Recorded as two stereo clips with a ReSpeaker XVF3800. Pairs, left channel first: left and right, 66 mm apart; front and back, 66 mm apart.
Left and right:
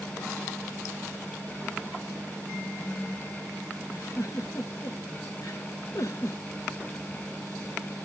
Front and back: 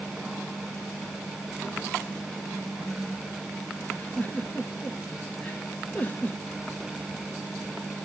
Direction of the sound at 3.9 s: 60° left.